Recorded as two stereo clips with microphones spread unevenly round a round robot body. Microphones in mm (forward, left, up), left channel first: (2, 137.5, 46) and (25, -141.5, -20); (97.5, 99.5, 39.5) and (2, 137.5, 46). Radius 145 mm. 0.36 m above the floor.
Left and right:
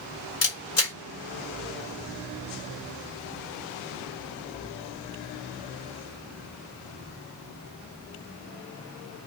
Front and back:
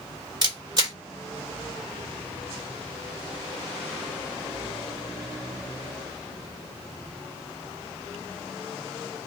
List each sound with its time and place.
0.4 s a camera shutter: 125° left, 1.7 m